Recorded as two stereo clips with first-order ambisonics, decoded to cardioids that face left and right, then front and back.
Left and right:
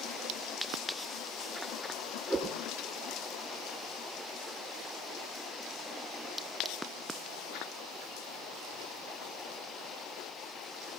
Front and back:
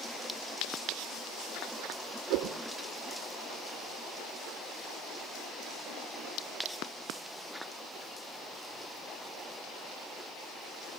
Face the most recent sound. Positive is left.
turn(degrees=-175)